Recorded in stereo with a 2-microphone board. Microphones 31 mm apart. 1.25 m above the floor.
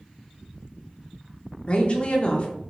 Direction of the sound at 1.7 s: 35° left (ahead or behind).